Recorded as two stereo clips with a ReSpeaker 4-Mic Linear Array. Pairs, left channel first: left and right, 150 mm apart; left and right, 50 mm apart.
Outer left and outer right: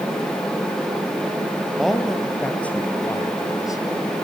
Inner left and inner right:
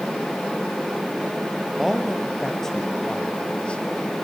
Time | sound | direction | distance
1.8 | a man speaking | centre (ahead or behind) | 3 m